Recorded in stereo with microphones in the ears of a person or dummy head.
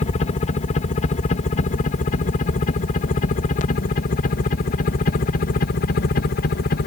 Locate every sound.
0.0 s a helicopter: 35° left (ahead or behind); by 6.9 s 50° left (ahead or behind)